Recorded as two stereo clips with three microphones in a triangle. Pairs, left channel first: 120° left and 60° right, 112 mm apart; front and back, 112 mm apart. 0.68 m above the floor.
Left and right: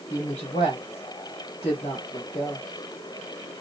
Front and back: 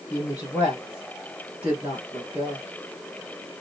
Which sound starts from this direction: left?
A woman speaking, at 0.1 s.